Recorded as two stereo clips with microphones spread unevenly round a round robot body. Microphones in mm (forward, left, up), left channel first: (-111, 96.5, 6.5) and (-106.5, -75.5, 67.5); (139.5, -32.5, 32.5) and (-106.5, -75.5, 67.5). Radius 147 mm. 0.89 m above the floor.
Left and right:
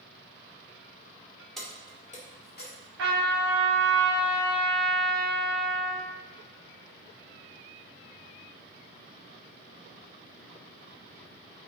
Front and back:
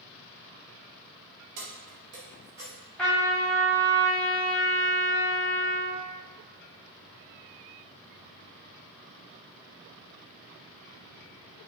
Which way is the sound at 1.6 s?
175° left.